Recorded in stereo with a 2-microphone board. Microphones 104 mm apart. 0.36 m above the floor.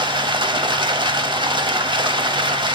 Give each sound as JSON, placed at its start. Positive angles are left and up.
{"t": 0.0, "sound": "running water", "side_deg": -50, "distance_m": 0.9}